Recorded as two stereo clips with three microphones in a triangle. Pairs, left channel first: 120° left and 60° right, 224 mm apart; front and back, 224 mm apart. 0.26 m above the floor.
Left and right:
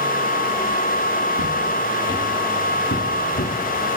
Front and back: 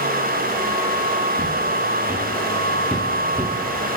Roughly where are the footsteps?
Left.